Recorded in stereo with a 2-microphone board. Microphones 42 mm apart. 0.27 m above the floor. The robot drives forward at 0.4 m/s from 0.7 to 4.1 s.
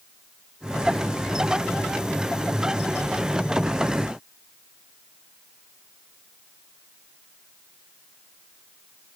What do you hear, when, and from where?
Only background noise.